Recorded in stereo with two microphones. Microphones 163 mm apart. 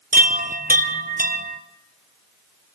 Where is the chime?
60° right (ahead or behind), 1.1 m.